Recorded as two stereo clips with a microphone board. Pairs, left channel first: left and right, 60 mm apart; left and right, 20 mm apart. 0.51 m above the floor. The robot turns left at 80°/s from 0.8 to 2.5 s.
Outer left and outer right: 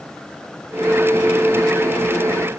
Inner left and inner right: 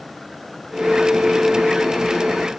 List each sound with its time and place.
Only background noise.